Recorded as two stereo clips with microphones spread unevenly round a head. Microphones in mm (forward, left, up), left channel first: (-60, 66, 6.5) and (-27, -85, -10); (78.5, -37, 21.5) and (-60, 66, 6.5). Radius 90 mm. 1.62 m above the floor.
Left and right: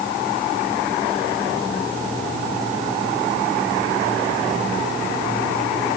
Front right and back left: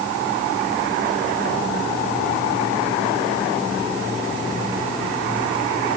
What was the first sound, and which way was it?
Only background noise.